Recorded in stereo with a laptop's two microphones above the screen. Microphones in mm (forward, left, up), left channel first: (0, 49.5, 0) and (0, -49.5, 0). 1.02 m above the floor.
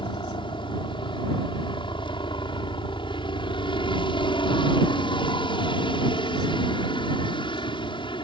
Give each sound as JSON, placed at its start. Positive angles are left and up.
{"t": 0.0, "sound": "a helicopter", "side_deg": 55}